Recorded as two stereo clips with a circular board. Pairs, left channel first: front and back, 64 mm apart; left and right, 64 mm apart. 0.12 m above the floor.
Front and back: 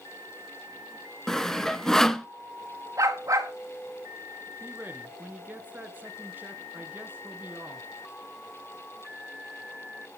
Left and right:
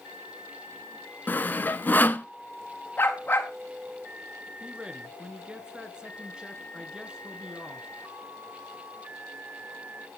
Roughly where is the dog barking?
Behind left.